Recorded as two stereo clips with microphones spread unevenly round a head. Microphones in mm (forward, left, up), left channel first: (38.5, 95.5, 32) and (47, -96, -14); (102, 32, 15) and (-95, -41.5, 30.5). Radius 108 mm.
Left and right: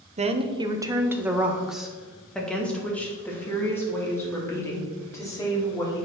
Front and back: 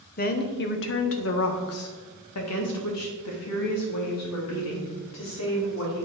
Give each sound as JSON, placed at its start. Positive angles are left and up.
{"t": 0.2, "sound": "a woman speaking", "azimuth_deg": -30, "distance_m": 1.0}